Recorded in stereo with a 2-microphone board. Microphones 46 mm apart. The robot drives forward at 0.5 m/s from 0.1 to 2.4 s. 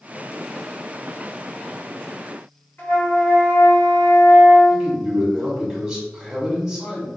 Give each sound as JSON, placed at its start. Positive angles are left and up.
{"t": 2.8, "sound": "a flute", "side_deg": 40, "distance_m": 1.6}
{"t": 4.7, "sound": "a man speaking", "side_deg": -15, "distance_m": 1.7}